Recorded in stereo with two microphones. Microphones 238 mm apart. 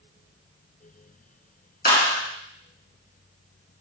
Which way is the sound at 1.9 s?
40° left (ahead or behind).